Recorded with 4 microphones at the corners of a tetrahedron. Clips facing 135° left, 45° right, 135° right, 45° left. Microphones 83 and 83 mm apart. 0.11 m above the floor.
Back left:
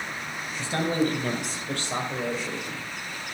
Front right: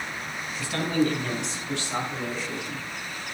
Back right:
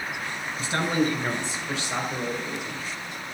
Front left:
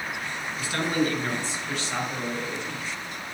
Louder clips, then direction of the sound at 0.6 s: Even, back right 1 dB; straight behind.